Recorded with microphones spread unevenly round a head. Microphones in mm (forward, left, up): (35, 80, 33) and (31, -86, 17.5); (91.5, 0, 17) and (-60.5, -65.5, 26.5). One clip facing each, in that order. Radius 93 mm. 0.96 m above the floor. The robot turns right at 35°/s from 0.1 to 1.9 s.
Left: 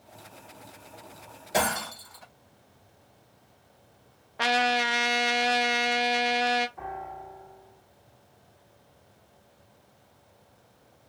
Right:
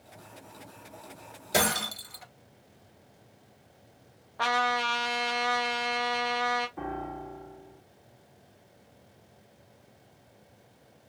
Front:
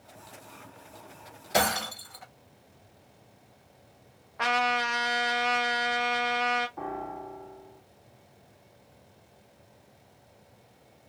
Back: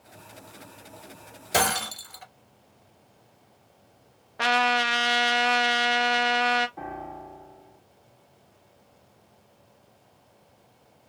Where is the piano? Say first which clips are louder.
Right 2 dB, front 1 dB; 80° right, 1.3 m.